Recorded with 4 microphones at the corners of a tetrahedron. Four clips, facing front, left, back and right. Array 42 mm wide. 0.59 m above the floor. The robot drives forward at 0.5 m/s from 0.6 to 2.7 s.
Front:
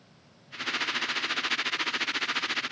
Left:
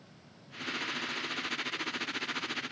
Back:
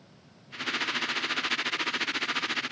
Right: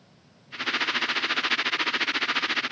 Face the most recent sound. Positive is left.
No sound to turn to.